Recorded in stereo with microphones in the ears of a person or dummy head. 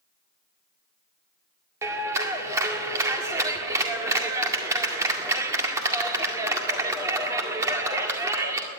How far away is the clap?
About 1.9 m.